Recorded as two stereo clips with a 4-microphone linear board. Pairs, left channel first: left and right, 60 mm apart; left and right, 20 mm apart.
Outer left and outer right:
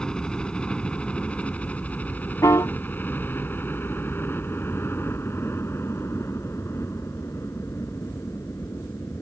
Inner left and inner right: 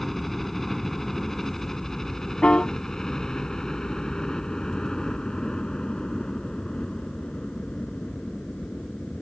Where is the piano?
75° left (ahead or behind).